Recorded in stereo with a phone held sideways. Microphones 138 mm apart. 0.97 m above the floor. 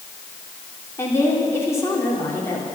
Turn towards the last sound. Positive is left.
turn(degrees=20)  # may be behind; listen again after turning